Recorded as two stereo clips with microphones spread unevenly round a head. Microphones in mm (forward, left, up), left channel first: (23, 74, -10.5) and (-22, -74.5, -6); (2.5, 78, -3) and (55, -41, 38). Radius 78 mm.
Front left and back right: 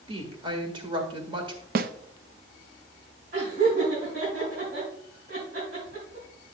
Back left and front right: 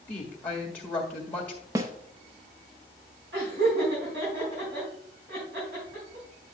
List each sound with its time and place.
0.1 s a woman speaking: 170° right, 1.7 m
1.8 s a snare drum: 125° right, 0.5 m
3.3 s laughter: 85° right, 4.5 m